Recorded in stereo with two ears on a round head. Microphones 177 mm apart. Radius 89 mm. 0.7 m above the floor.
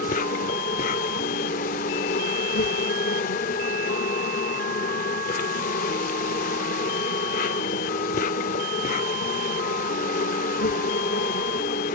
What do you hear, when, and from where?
0.0 s an insect: 40° left (ahead or behind), 0.7 m